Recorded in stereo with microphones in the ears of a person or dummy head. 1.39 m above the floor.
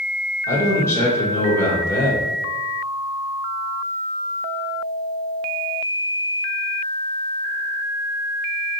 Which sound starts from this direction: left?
A man speaking, at 0.5 s.